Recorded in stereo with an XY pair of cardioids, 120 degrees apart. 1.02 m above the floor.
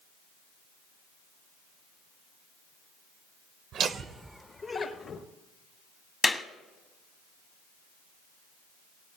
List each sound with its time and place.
3.7 s laughter: 60° right, 0.7 m; by 5.2 s 50° left, 1.3 m
6.2 s a clap: 20° left, 0.9 m